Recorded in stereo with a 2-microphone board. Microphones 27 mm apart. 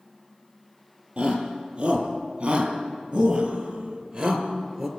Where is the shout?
35° right (ahead or behind), 5.5 m; by 4.9 s 10° right (ahead or behind), 3.5 m.